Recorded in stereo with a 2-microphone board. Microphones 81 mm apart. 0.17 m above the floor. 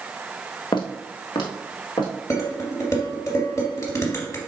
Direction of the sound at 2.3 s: 40° left (ahead or behind).